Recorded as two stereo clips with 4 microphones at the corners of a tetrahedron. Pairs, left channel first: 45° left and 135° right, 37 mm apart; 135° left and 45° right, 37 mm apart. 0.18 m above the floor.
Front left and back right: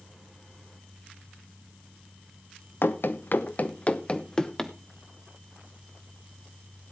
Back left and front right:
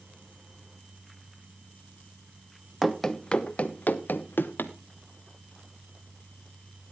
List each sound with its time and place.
2.8 s running footsteps: 50° left, 1.2 m; by 4.7 s 125° left, 1.6 m